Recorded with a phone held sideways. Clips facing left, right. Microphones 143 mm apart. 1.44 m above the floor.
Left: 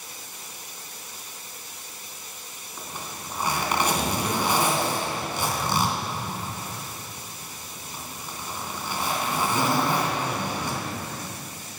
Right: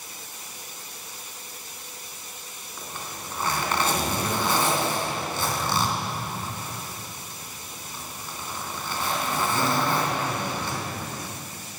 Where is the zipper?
15° left (ahead or behind), 3 m.